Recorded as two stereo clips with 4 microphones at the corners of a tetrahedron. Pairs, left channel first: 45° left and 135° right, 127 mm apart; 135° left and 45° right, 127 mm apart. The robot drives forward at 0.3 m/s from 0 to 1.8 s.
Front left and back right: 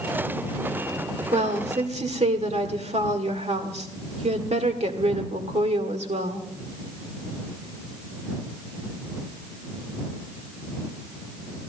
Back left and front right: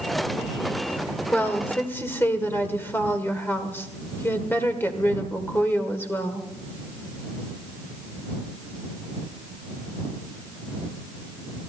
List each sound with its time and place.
1.3 s a woman speaking: 150° right, 1.7 m; by 6.5 s 155° right, 1.8 m